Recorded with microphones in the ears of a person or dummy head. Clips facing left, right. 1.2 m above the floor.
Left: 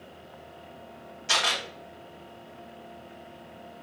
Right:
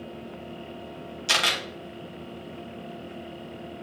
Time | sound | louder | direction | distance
1.3 | a camera shutter | right 1 dB | 40° right (ahead or behind) | 1.2 m